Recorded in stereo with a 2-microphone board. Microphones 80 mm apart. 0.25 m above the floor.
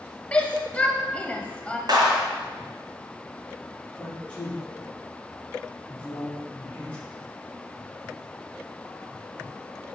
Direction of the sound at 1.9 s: 60° right (ahead or behind).